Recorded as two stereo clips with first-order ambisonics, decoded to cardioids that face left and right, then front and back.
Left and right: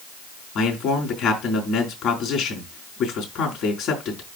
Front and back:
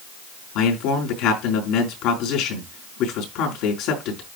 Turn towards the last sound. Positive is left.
turn(degrees=35)